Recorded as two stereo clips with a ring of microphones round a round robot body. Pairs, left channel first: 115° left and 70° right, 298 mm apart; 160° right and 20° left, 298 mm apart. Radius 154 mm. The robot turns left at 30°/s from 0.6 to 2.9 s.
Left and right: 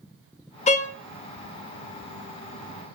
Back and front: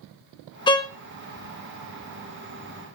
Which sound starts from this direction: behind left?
A violin, at 0.7 s.